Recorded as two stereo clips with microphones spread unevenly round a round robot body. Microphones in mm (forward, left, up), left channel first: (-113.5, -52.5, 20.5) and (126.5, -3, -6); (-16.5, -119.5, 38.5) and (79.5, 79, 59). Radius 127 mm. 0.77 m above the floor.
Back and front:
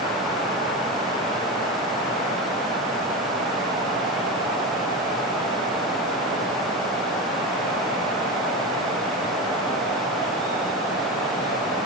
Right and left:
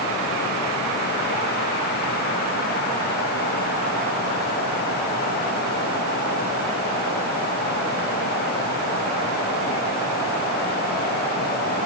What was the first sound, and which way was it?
Only background noise.